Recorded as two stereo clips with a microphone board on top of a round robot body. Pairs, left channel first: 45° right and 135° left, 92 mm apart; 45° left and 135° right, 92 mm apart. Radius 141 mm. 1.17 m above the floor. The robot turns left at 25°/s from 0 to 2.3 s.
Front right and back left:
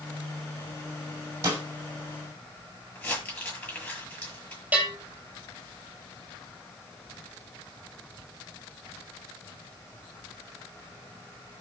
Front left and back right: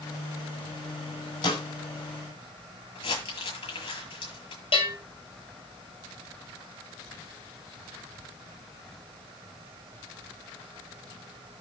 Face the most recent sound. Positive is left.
turn(degrees=60)